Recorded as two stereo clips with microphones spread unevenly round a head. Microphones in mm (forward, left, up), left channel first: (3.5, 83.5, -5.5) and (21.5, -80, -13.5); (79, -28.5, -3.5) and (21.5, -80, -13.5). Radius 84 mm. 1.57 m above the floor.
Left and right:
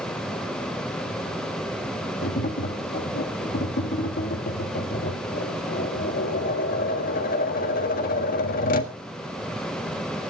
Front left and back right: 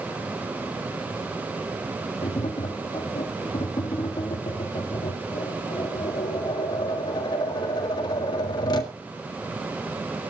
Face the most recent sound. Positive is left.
turn(degrees=70)